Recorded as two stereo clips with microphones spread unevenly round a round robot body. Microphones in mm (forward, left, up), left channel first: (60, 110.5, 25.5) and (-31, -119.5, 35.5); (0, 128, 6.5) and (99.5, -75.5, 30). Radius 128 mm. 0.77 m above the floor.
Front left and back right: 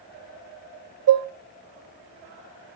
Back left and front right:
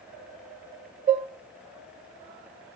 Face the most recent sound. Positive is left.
turn(degrees=-130)